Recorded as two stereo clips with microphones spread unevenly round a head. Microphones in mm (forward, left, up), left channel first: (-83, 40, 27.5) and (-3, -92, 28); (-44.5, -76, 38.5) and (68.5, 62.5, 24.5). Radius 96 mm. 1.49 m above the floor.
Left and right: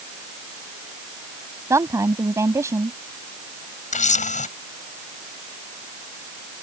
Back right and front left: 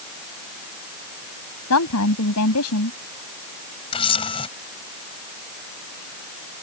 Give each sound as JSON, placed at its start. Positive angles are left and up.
{"t": 1.7, "sound": "a woman speaking", "azimuth_deg": -130}
{"t": 3.9, "sound": "a camera shutter", "azimuth_deg": 165}